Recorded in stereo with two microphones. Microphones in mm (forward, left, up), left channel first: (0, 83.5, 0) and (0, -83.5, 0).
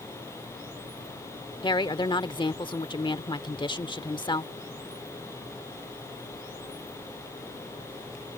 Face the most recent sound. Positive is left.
turn(degrees=30)  # may be behind; listen again after turning